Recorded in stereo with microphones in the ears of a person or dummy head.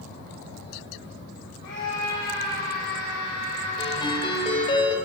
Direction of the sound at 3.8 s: 30° left (ahead or behind).